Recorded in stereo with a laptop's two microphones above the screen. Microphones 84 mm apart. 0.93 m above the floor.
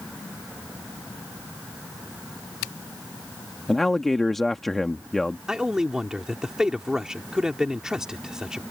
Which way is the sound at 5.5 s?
10° right (ahead or behind).